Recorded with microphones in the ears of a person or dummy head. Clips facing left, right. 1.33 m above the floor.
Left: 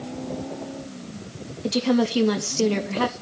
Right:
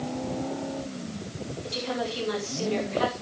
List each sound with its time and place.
1.6 s a woman speaking: 60° left (ahead or behind), 2 m